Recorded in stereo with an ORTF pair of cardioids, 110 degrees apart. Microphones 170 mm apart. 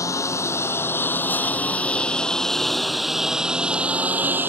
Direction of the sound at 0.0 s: 15° left.